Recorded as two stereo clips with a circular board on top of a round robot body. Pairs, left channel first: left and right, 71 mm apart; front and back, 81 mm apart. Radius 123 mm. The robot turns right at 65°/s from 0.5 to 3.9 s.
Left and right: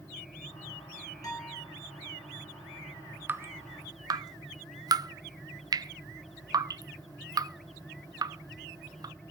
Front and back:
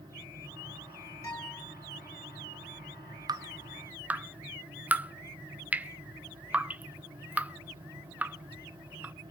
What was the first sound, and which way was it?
A guitar, 50° left.